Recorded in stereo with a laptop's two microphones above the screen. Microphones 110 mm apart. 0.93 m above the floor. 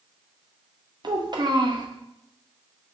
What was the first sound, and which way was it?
A child speaking, 40° right (ahead or behind).